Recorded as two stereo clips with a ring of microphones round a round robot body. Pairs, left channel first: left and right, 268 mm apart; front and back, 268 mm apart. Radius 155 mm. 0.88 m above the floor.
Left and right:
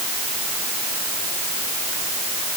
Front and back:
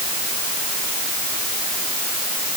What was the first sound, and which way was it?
Only background noise.